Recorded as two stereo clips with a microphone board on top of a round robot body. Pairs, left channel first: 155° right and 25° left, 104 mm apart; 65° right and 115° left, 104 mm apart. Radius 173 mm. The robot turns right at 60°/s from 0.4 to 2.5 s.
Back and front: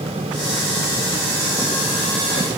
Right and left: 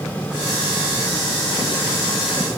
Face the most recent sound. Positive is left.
No sound to turn to.